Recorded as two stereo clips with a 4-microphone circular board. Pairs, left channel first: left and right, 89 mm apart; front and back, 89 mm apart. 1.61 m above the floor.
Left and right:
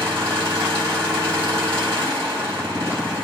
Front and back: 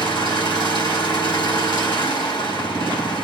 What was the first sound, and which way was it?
An engine running, 30° right.